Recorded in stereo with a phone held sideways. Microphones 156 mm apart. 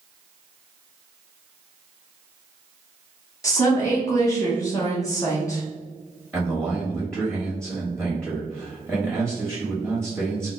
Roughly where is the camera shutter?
I don't hear a camera shutter.